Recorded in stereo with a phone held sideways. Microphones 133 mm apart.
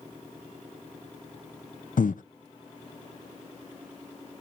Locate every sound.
2.0 s breathing: 80° left, 0.5 m